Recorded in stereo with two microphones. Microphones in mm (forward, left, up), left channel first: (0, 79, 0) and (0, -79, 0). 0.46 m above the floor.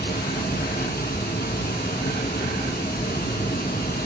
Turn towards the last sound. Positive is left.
turn(degrees=75)  # may be behind; listen again after turning